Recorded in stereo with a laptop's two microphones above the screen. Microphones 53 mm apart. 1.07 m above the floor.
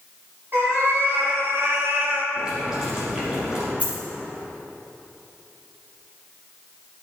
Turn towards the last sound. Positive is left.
turn(degrees=-25)  # may be behind; listen again after turning